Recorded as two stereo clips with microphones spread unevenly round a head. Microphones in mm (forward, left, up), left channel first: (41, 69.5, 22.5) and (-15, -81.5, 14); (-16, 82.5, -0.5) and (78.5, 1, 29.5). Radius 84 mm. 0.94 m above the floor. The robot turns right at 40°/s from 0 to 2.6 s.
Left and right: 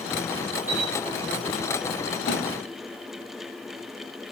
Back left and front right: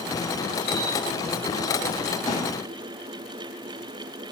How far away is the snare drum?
About 4 m.